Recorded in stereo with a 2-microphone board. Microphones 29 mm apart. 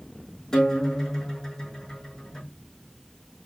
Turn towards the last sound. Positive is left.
turn(degrees=20)  # may be behind; listen again after turning